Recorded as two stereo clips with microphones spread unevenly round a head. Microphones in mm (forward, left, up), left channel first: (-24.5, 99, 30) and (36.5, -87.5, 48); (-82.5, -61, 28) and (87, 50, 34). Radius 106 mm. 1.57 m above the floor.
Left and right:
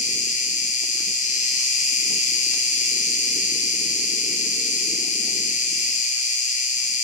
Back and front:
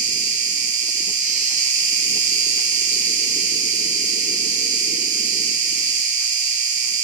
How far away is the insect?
About 1.2 m.